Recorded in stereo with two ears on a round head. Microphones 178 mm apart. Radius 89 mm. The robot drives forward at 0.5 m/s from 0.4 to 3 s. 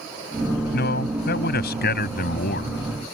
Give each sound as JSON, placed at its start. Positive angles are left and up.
{"t": 0.7, "sound": "a man speaking", "side_deg": 55}